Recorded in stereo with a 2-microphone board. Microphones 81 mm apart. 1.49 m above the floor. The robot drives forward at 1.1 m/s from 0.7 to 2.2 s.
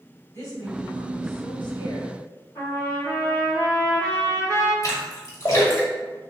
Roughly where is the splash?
Left.